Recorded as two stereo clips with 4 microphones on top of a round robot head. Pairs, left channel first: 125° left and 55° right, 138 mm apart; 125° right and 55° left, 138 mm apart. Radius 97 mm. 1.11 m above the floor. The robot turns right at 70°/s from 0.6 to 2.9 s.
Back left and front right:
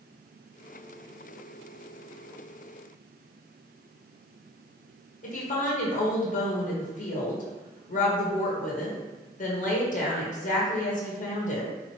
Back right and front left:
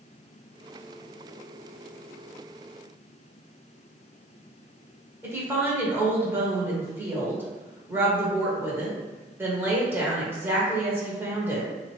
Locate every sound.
5.2 s a woman speaking: 130° left, 1.2 m